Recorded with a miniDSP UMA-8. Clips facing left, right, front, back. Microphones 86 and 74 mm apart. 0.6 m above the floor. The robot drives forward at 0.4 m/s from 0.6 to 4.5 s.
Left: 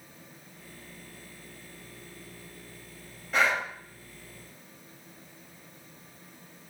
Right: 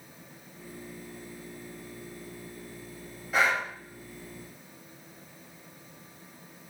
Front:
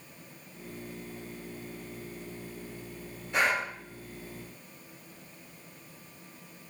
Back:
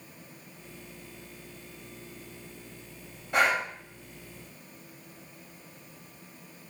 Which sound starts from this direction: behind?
Breathing, at 3.3 s.